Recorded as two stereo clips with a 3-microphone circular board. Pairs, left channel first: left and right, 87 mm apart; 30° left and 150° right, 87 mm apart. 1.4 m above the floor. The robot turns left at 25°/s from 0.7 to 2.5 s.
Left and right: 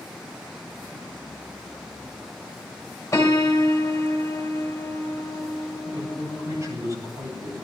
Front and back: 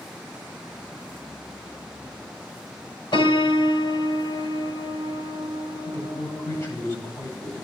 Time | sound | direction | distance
3.1 | a piano | 40° left | 2.5 m
5.8 | a man speaking | 35° right | 9.5 m